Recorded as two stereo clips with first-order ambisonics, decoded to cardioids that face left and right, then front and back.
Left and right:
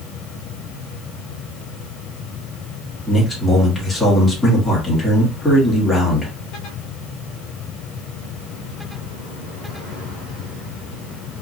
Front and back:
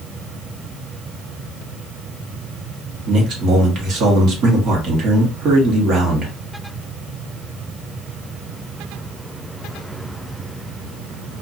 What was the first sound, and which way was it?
A man speaking, 170° left.